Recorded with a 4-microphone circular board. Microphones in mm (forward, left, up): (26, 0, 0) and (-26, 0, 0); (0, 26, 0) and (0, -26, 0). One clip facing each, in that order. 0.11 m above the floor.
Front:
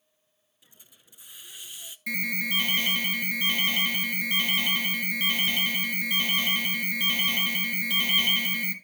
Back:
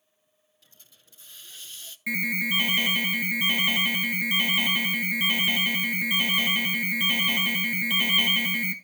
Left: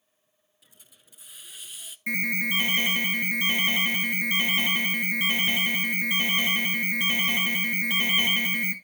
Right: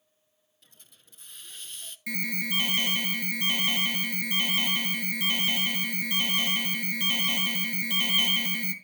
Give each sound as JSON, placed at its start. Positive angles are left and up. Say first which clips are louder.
{"t": 0.6, "sound": "a hiss", "louder": "front 1 dB, left 1 dB", "azimuth_deg": 30, "distance_m": 0.6}
{"t": 2.1, "sound": "an alarm", "louder": "back 3 dB, left 5 dB", "azimuth_deg": 115, "distance_m": 1.8}